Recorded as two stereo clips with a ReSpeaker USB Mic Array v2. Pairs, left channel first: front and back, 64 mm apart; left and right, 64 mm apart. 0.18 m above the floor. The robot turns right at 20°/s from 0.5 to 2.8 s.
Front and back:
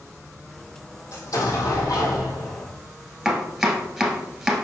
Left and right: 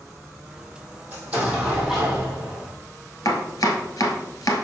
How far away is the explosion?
About 3 m.